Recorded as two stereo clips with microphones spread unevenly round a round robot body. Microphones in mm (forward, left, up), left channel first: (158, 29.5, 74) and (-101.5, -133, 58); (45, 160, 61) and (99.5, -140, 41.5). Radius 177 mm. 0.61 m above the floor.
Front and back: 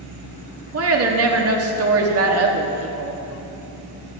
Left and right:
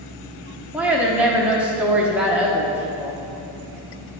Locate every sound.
0.7 s a woman speaking: 160° right, 1.0 m